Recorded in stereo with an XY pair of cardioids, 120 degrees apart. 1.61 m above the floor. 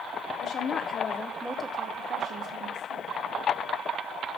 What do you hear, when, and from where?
0.4 s a woman speaking: 55° left, 1.3 m; by 3.2 s 60° right, 1.9 m